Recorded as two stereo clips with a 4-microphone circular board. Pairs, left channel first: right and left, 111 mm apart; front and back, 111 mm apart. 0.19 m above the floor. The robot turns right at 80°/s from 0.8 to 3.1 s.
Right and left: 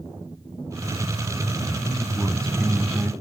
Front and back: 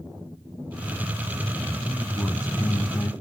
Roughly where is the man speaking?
Right.